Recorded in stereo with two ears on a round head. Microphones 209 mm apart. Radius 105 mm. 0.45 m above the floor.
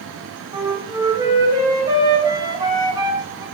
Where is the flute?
15° right (ahead or behind), 0.5 m.